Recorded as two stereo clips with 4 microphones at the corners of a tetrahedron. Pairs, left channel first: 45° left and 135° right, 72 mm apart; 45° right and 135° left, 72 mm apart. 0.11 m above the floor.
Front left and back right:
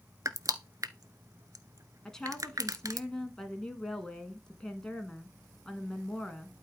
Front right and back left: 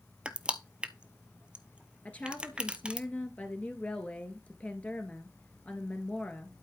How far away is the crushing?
About 0.8 m.